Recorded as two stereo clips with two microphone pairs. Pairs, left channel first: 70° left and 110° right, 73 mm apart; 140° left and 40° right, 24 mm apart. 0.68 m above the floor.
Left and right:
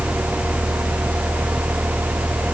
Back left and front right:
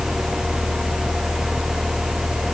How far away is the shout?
No shout in this recording.